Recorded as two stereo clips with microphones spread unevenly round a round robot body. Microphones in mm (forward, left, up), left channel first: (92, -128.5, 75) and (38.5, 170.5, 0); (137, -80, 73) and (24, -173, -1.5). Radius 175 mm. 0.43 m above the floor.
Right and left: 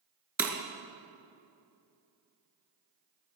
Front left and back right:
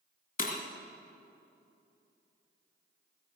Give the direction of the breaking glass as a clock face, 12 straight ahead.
12 o'clock.